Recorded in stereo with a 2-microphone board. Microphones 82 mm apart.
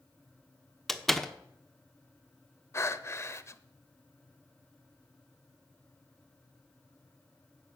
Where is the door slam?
5° left (ahead or behind), 0.9 m.